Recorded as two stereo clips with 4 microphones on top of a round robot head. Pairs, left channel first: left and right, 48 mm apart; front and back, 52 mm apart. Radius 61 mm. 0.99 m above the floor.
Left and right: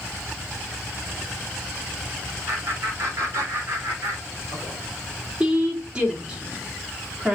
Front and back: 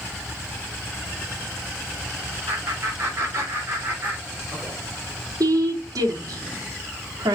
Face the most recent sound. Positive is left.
turn(degrees=-165)